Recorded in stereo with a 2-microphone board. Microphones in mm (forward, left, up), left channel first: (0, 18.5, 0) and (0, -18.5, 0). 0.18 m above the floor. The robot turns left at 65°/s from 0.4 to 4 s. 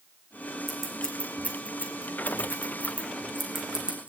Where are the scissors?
Centre (ahead or behind), 2.5 m; by 4.1 s 35° right (ahead or behind), 2.5 m.